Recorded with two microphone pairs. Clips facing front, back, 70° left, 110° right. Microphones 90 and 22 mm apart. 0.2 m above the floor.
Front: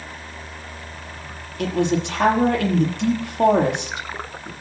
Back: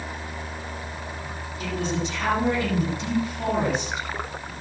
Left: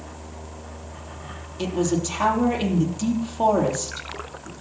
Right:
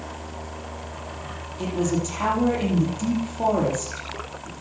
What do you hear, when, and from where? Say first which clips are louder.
1.6 s a man speaking: front 7 dB, left 1 dB; 10° left, 7 m